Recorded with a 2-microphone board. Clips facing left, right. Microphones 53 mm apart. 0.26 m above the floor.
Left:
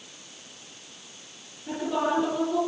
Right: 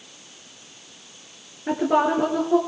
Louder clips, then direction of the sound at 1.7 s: Right 7 dB; 70° right (ahead or behind).